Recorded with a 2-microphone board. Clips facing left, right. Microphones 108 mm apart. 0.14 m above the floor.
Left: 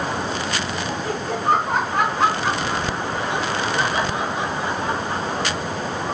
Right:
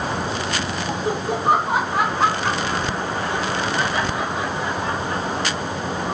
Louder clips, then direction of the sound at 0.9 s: Right 4 dB; 20° right (ahead or behind).